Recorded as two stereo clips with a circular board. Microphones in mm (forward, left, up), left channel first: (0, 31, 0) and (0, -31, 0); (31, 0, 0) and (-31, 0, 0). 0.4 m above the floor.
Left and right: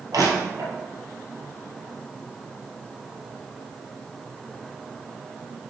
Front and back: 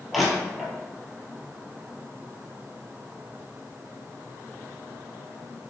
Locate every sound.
0.1 s crushing: 90° right, 1.9 m